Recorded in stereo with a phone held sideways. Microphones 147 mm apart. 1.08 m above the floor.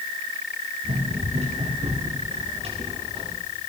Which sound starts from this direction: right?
Running footsteps, at 0.8 s.